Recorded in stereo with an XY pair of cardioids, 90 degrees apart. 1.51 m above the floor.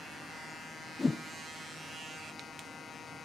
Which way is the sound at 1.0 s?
30° left.